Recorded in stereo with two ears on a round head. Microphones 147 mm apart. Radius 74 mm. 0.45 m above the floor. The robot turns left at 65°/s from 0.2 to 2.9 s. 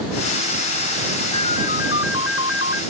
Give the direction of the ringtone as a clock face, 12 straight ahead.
7 o'clock.